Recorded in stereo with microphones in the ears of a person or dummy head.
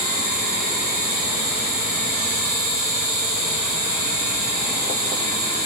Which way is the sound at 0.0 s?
15° right (ahead or behind).